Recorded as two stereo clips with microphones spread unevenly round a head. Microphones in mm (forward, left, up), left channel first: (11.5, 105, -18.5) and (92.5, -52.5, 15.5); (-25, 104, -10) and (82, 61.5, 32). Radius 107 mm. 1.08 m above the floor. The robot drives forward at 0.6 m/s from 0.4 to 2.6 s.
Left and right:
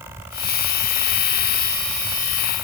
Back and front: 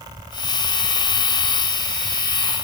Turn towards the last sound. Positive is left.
No sound to turn to.